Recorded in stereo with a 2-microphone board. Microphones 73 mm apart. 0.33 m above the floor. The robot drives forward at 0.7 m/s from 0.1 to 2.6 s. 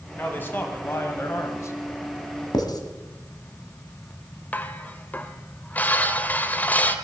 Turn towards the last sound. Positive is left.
turn(degrees=25)  # may be behind; listen again after turning